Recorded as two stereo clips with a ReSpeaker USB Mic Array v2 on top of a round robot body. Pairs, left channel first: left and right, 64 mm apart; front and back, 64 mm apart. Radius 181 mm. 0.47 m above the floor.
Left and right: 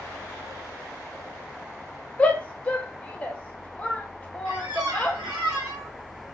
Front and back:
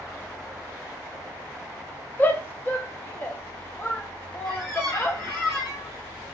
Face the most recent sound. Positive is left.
turn(degrees=-90)